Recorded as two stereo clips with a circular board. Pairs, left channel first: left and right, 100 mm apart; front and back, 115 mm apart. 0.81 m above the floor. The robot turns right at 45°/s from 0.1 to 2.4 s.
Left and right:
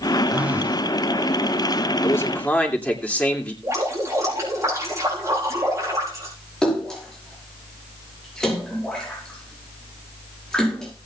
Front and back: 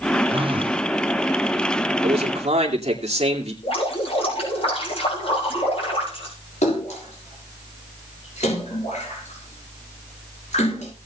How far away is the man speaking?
About 2.5 m.